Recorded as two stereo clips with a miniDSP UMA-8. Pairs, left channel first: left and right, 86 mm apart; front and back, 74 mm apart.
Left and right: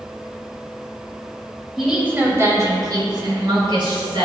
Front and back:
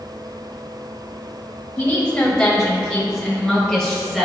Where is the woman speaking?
10° left, 1.5 m; by 4.3 s 95° right, 4 m.